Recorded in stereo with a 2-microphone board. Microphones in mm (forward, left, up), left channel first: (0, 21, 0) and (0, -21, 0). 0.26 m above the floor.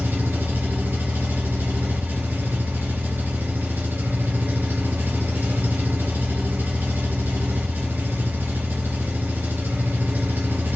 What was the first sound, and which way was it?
An engine running, 65° right (ahead or behind).